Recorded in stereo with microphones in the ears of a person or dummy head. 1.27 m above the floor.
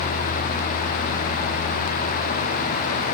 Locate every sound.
Only background noise.